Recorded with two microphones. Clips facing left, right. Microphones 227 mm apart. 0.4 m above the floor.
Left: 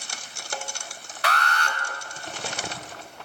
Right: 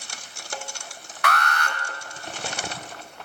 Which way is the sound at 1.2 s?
30° left (ahead or behind).